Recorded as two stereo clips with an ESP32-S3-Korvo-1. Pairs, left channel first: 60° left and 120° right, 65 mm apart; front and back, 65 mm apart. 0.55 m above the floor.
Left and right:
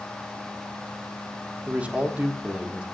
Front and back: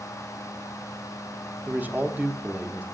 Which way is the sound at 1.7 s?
165° right.